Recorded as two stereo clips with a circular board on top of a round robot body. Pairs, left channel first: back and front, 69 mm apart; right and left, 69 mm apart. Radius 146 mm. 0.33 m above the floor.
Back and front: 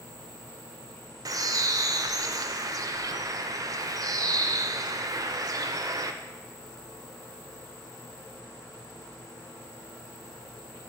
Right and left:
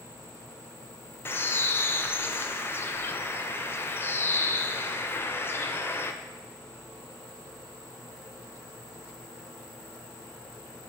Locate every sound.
1.2 s a bird: 30° right, 0.5 m